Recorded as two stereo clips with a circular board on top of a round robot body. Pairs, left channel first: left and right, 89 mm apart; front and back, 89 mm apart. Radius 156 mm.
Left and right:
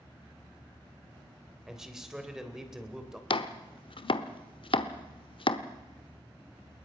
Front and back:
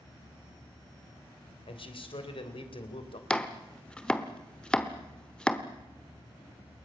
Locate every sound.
1.7 s a man speaking: 5° right, 3 m
3.3 s chopping: 80° left, 1.2 m